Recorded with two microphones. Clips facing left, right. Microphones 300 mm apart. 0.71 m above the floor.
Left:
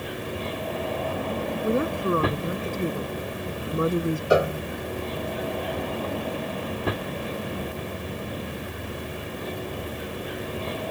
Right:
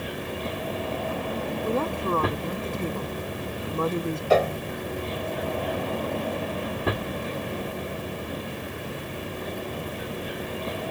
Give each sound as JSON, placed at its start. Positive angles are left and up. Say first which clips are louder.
{"t": 1.6, "sound": "a woman speaking", "louder": "left 3 dB", "side_deg": 15}
{"t": 4.3, "sound": "a piano", "louder": "even", "side_deg": 15}